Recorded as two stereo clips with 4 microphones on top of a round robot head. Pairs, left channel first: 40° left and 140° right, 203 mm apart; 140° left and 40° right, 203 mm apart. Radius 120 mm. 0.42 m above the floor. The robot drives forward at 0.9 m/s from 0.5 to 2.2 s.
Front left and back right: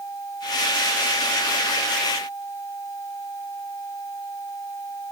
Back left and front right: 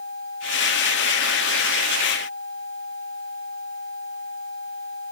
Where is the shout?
No shout in this recording.